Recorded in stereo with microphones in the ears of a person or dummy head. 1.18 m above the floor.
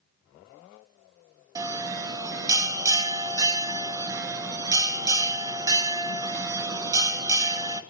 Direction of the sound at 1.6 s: 20° right (ahead or behind).